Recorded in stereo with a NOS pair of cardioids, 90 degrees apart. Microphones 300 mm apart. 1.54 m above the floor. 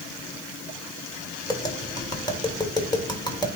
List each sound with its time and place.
1.5 s tapping: 15° left, 3 m